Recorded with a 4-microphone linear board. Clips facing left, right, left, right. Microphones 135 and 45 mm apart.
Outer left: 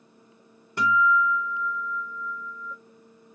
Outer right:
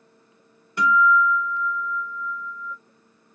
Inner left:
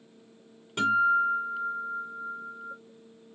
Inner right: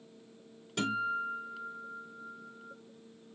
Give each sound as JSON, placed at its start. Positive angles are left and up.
{"t": 0.8, "sound": "a guitar", "side_deg": 30, "distance_m": 1.6}